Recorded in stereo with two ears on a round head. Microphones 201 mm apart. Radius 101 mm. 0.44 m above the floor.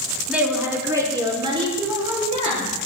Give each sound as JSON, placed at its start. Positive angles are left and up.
{"t": 0.3, "sound": "a woman speaking", "side_deg": -5, "distance_m": 4.5}